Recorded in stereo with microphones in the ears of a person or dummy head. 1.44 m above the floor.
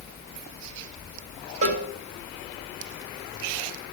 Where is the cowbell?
45° right (ahead or behind), 1.9 m.